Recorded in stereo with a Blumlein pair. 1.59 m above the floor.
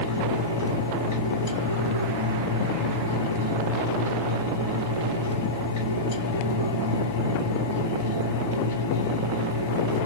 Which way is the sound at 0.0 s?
60° left.